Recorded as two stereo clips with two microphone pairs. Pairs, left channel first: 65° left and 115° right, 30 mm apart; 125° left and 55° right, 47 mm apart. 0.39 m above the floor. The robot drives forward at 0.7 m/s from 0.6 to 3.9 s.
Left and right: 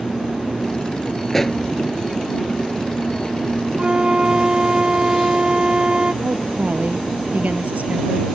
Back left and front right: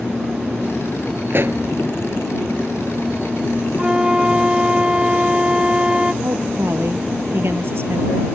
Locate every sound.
1.3 s a pop: 10° right
3.8 s a flute: 105° right; by 6.1 s 110° right
6.2 s a woman speaking: 90° right